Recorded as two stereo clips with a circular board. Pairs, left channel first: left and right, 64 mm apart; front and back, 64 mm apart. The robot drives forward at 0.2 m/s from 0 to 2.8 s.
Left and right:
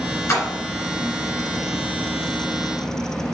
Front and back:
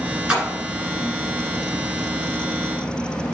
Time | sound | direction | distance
0.3 | a splash | 105° left | 1.7 m